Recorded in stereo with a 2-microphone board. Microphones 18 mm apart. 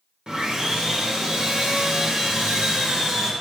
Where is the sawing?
55° right (ahead or behind), 0.7 m.